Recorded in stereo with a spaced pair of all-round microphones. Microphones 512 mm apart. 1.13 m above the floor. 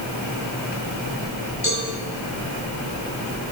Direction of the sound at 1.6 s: 25° right (ahead or behind).